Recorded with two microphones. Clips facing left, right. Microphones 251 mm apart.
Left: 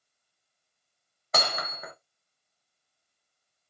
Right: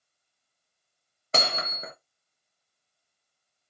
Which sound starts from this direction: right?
Hammering, at 1.3 s.